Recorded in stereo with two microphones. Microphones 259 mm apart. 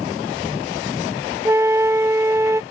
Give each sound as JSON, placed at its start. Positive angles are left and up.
{"t": 1.4, "sound": "a flute", "side_deg": -10}